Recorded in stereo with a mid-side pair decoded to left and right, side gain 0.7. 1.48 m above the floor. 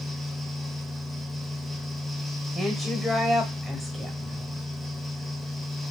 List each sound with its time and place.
0.0 s a fan: 5° right, 0.8 m
2.5 s a woman speaking: 5° right, 0.8 m